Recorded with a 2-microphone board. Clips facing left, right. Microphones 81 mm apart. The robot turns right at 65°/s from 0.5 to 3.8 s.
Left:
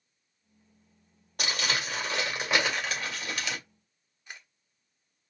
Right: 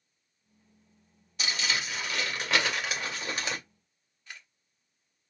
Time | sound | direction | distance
1.4 | crumpling | 95° left | 1.9 m
4.3 | a camera shutter | 20° left (ahead or behind) | 1.1 m